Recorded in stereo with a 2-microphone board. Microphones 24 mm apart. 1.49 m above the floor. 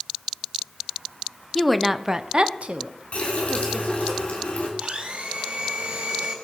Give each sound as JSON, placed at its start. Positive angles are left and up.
{"t": 1.6, "sound": "a woman speaking", "side_deg": 0, "distance_m": 0.8}
{"t": 3.1, "sound": "a running tap", "side_deg": 50, "distance_m": 3.0}
{"t": 4.8, "sound": "a blender", "side_deg": -55, "distance_m": 4.0}